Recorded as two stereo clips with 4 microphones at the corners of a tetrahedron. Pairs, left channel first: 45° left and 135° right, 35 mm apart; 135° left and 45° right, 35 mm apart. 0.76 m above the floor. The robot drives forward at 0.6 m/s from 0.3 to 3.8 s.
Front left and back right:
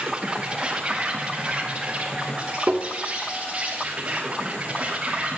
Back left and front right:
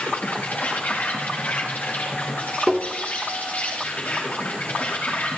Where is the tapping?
125° right, 2 m; by 2.9 s 130° right, 2 m.